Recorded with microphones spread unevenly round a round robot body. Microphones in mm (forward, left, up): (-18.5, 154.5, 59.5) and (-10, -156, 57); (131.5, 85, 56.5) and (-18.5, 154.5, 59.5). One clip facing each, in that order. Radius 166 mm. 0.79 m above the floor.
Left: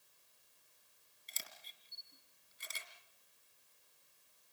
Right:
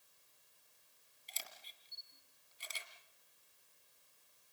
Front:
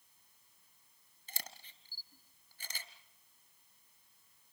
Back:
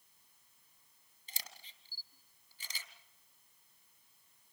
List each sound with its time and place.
1.3 s a camera shutter: 20° left, 3 m